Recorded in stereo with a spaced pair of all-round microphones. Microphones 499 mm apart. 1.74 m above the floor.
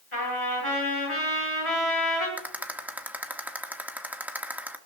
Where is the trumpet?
80° left, 8 m.